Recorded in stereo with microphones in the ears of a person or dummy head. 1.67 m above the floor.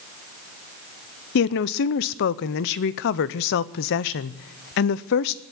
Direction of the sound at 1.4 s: 65° left (ahead or behind).